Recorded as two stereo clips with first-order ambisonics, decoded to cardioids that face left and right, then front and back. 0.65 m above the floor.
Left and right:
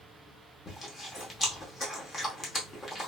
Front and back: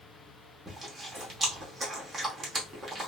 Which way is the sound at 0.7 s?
125° left.